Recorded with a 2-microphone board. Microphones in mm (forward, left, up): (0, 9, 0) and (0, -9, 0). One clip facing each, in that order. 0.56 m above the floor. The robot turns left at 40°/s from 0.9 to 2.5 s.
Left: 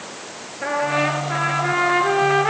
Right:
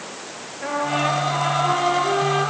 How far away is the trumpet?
About 6 m.